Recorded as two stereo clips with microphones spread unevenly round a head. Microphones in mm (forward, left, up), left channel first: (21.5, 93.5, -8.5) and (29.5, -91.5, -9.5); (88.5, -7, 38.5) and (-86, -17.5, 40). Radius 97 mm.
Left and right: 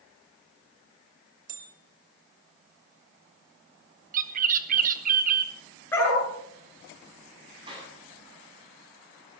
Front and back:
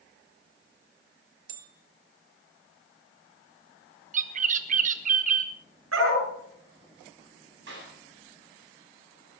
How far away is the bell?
About 1.7 m.